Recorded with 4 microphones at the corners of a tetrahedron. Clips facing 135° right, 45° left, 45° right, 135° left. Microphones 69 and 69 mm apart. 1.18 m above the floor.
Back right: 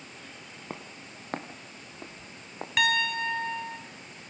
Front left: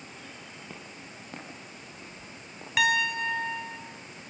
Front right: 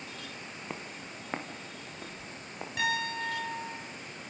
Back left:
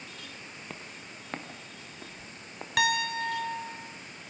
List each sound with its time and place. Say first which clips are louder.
0.7 s footsteps: back right 2 dB, front right 4 dB; 110° right, 1.8 m; by 2.7 s 130° right, 3.5 m
2.8 s a piano: front left 1 dB, back left 4 dB; 135° left, 2 m